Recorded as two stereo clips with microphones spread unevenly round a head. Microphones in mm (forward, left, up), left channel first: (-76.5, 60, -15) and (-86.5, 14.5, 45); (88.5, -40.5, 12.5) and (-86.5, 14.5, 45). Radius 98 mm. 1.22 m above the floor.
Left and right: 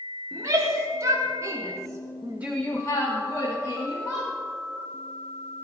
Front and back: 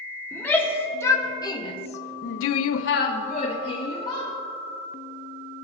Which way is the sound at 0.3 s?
100° right.